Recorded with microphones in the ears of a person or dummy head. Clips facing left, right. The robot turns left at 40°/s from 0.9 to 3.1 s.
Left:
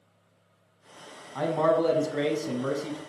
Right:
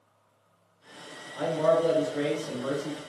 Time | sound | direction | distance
1.4 | a man speaking | 95° left | 0.8 m